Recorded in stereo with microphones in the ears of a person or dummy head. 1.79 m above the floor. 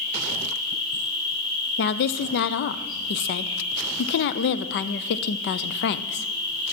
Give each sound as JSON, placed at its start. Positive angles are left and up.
{"t": 0.0, "sound": "an insect", "side_deg": 45, "distance_m": 4.5}
{"t": 1.8, "sound": "a woman speaking", "side_deg": 55, "distance_m": 0.5}